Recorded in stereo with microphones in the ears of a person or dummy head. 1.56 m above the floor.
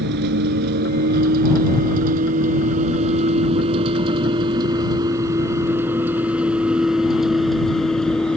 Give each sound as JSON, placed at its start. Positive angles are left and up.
{"t": 0.0, "sound": "a vehicle", "side_deg": -60}